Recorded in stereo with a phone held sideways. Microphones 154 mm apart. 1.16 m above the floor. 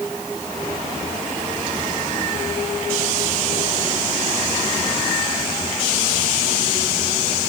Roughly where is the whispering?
I don't hear whispering.